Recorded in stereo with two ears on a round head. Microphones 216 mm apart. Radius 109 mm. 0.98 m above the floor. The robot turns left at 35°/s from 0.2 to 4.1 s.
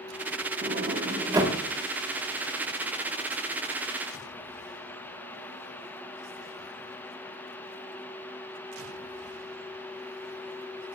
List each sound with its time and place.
0.6 s a sliding door: 45° right (ahead or behind), 1.4 m; by 1.6 s 10° right (ahead or behind), 1.4 m